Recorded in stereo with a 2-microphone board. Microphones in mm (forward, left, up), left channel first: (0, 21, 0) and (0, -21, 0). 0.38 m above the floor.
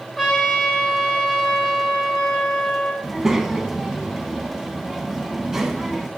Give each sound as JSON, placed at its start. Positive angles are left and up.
{"t": 0.2, "sound": "a trumpet", "side_deg": -5, "distance_m": 3.0}
{"t": 3.0, "sound": "a child speaking", "side_deg": -10, "distance_m": 1.6}